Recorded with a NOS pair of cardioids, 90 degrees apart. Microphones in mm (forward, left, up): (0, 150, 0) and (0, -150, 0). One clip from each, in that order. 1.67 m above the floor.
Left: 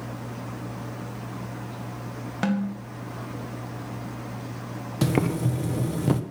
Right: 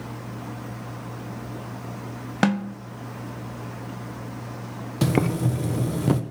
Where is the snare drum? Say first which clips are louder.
Right 5 dB; 45° right, 1.7 m.